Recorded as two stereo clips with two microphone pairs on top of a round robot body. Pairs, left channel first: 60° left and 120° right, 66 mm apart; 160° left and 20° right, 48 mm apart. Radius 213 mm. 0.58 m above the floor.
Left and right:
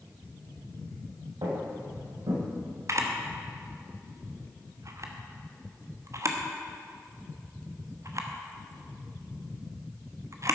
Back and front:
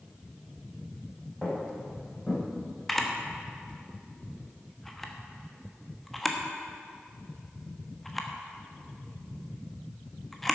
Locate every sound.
1.4 s footsteps: 120° right, 3.5 m; by 2.4 s 115° right, 4.5 m
2.9 s a camera shutter: 110° right, 1.5 m